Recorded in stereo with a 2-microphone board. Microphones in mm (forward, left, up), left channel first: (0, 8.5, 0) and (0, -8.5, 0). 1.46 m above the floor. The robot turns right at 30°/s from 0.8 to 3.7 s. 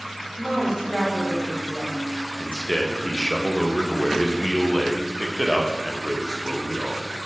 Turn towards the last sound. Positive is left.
turn(degrees=140)